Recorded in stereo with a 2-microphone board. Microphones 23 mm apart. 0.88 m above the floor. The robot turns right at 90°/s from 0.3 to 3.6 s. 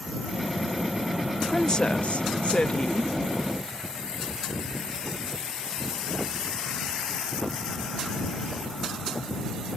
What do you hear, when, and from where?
1.5 s a woman speaking: 25° left; by 3.1 s 170° left